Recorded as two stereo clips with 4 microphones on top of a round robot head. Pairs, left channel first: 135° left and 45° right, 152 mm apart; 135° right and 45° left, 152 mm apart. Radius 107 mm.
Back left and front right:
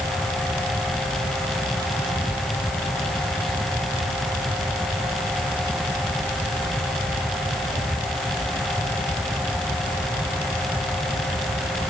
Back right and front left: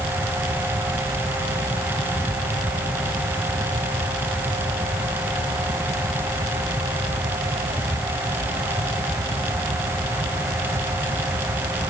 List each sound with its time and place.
Only background noise.